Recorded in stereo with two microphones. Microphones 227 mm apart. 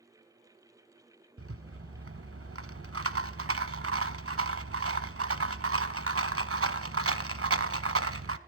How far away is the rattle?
About 1.0 m.